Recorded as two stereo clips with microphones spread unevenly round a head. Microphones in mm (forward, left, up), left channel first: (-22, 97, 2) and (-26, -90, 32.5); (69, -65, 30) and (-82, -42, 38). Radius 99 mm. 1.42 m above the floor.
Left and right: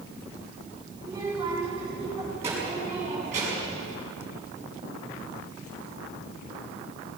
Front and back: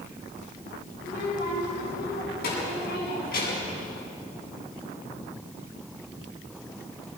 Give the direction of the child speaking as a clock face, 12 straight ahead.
1 o'clock.